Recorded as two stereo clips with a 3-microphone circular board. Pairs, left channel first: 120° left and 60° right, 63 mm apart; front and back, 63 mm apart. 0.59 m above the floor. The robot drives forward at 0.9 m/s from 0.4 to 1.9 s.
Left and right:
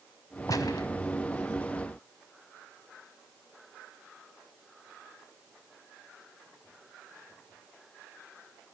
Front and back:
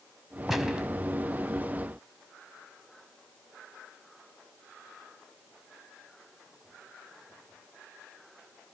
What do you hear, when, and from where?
0.5 s a gunshot: 95° left, 1.5 m; by 0.9 s 105° left, 1.5 m